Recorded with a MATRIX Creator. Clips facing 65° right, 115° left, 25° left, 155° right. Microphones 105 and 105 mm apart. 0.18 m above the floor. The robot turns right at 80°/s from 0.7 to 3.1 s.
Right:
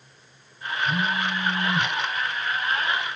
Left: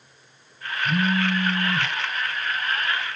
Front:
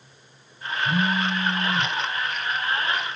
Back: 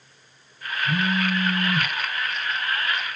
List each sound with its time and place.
0.8 s a phone buzzing: 115° left, 2.5 m; by 1.9 s 160° right, 2.5 m